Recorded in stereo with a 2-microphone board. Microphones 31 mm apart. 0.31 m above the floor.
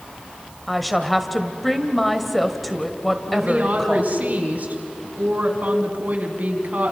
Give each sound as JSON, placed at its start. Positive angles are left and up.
{"t": 0.7, "sound": "a woman speaking", "side_deg": 0, "distance_m": 1.6}
{"t": 3.3, "sound": "a woman speaking", "side_deg": -55, "distance_m": 3.0}